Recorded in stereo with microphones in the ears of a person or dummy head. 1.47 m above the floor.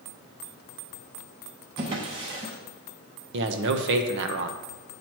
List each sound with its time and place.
1.8 s a drawer: 25° right (ahead or behind), 0.7 m
3.3 s a man speaking: 70° right (ahead or behind), 0.8 m